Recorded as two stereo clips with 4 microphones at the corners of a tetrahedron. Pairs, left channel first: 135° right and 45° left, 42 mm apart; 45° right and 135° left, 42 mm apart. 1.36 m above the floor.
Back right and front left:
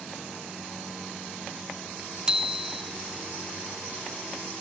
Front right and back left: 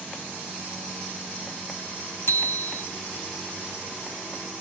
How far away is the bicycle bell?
About 2.5 m.